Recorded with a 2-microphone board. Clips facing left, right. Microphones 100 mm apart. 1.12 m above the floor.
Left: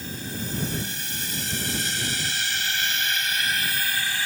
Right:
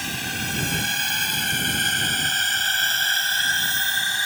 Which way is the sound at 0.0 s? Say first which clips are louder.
Right 3 dB; 75° right (ahead or behind).